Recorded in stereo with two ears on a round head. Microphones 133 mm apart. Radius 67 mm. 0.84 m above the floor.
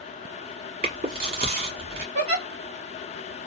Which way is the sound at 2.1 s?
50° right (ahead or behind).